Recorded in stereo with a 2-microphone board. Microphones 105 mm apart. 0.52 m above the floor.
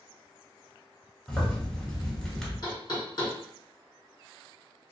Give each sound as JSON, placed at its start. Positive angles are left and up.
{"t": 1.3, "sound": "a zipper", "side_deg": 5, "distance_m": 1.1}
{"t": 2.6, "sound": "knocking", "side_deg": 45, "distance_m": 1.6}